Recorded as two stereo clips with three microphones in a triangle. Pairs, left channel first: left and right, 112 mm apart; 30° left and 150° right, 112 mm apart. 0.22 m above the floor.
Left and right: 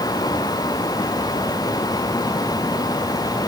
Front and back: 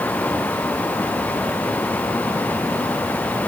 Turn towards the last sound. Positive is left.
No sound to turn to.